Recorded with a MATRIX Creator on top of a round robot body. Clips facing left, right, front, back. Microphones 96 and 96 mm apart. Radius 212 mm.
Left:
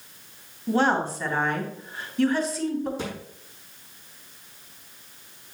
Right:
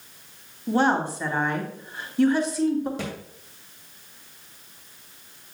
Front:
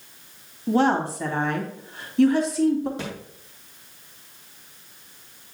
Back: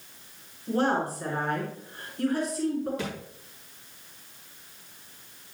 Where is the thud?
65° right, 2.5 m.